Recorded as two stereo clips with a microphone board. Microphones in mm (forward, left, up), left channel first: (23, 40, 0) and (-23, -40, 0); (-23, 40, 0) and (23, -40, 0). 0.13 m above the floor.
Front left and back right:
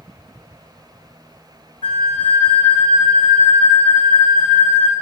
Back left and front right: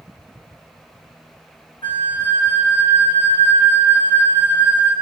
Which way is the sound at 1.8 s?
85° left.